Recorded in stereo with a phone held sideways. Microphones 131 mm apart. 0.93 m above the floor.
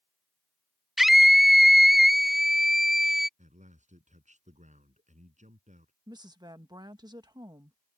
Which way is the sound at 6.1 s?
30° right (ahead or behind).